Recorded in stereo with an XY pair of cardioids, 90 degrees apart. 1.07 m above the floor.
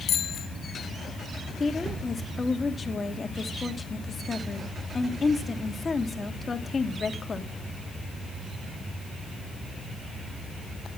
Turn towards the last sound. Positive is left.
turn(degrees=30)